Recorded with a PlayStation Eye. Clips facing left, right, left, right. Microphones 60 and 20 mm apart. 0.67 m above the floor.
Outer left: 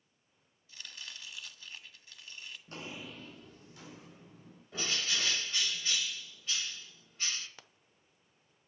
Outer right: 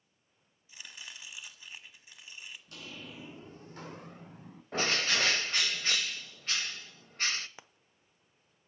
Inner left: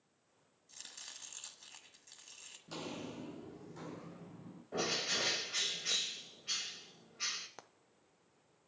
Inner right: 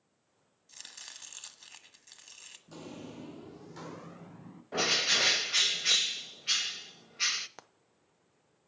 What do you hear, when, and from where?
0.7 s chopping: 20° right (ahead or behind), 1.4 m
2.7 s footsteps: 40° left (ahead or behind), 0.9 m; by 4.6 s 70° right (ahead or behind), 2.5 m
4.7 s a bird: 65° right (ahead or behind), 0.7 m
7.6 s frying: 20° right (ahead or behind), 0.6 m